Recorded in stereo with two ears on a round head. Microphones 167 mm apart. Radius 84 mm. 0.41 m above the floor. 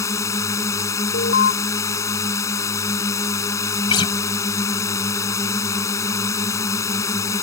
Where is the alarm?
60° left (ahead or behind).